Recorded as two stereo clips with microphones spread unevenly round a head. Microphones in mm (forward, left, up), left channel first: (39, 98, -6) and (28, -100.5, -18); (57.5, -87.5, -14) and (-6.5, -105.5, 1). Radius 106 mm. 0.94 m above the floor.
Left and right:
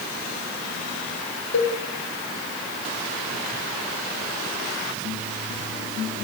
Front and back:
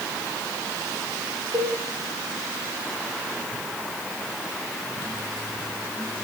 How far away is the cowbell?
About 1.1 m.